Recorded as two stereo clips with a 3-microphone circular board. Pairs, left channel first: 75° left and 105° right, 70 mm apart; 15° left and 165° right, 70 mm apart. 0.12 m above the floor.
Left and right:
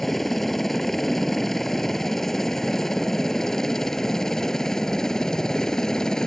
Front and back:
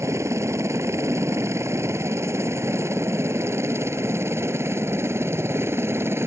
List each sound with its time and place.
0.0 s a helicopter: 160° left; by 6.3 s 155° left